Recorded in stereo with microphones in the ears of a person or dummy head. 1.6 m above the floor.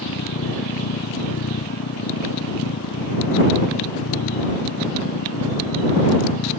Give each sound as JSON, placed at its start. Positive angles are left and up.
{"t": 0.0, "sound": "a machine running", "side_deg": 85}